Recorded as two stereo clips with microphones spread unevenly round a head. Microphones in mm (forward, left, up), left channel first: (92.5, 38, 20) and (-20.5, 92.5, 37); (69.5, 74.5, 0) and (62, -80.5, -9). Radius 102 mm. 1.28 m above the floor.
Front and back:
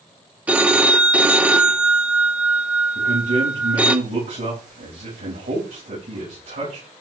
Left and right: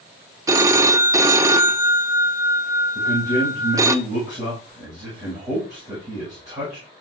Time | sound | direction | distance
0.5 | a phone ringing | 150° right | 0.6 m
3.0 | a man speaking | 170° right | 7 m